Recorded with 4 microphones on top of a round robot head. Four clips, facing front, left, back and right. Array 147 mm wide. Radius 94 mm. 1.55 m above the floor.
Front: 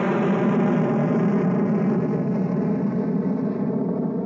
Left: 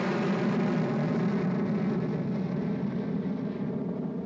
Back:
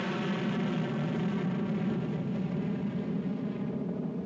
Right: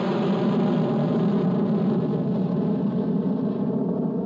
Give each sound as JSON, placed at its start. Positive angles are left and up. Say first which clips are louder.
{"t": 0.0, "sound": "an aircraft", "louder": "right 5 dB, front 12 dB", "azimuth_deg": -25}